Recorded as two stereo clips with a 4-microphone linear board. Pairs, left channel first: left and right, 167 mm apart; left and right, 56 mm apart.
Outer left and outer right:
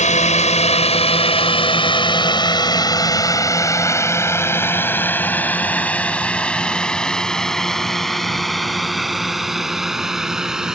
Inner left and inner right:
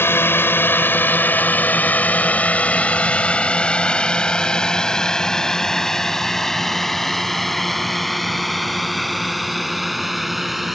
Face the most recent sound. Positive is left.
turn(degrees=-5)  # may be behind; listen again after turning